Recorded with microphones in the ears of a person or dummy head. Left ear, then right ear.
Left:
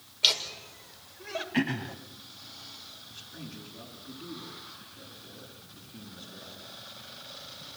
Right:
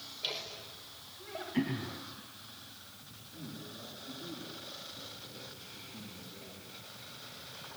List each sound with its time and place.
0.2 s laughter: 55° left (ahead or behind), 5.5 m
1.5 s throat clearing: 75° left (ahead or behind), 2.5 m
3.1 s a man speaking: 50° left (ahead or behind), 9.5 m